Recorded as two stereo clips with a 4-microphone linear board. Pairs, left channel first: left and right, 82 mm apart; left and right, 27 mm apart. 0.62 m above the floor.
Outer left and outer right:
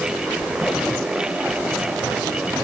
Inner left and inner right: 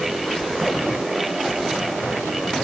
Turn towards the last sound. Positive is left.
No sound to turn to.